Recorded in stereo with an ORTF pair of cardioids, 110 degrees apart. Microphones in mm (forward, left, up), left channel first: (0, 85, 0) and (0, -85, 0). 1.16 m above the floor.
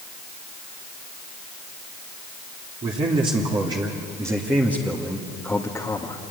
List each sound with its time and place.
2.8 s a man speaking: 40° right, 3 m; by 6.2 s 20° left, 2 m